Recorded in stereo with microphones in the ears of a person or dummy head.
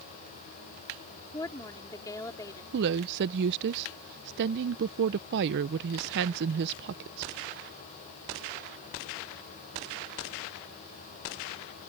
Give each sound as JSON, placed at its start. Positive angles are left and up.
{"t": 1.3, "sound": "a woman speaking", "side_deg": 15}
{"t": 2.7, "sound": "a woman speaking", "side_deg": -60}